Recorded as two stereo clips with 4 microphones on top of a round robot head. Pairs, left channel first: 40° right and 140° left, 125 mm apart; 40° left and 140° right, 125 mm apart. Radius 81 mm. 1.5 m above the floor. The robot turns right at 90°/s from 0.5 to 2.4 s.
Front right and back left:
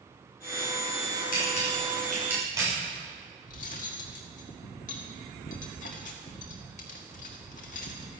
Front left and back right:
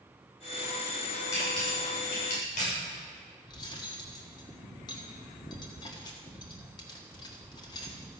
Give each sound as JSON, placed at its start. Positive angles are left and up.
{"t": 1.3, "sound": "a camera shutter", "azimuth_deg": -25, "distance_m": 7.5}
{"t": 3.5, "sound": "cutlery clinking", "azimuth_deg": -15, "distance_m": 1.6}